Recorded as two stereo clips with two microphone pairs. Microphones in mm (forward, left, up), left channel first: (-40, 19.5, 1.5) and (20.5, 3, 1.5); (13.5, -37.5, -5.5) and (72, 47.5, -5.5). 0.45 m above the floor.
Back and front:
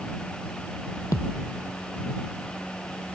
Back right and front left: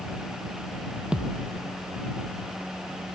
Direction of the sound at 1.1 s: 140° left.